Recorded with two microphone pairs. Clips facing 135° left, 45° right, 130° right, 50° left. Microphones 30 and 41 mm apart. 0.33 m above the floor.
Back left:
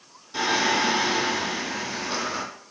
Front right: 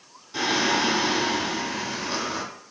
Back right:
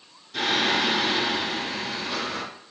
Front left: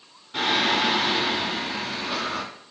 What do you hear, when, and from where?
0.3 s singing: 45° left, 1.0 m